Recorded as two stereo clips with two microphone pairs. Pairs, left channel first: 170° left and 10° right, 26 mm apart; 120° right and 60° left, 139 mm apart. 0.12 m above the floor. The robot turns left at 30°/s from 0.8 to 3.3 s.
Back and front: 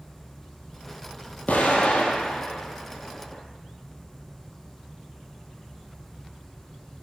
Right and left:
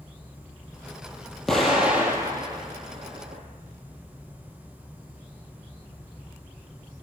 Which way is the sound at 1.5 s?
155° left.